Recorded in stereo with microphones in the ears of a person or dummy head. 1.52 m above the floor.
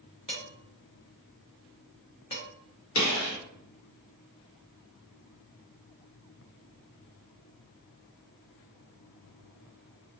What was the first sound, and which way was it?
Dishes clattering, 20° left (ahead or behind).